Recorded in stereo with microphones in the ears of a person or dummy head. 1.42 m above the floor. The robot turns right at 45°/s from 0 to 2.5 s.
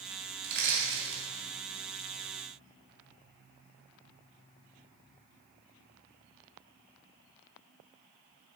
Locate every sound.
0.4 s crushing: 60° right (ahead or behind), 3 m; by 1.2 s 25° right (ahead or behind), 3 m